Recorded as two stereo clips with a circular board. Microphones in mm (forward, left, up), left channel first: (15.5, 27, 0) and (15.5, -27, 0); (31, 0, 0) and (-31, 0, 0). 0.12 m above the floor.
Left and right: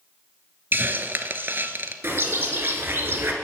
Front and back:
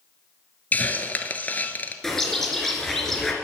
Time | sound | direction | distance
0.7 | a hiss | 55° right | 0.9 m
2.0 | a bird | 80° right | 1.9 m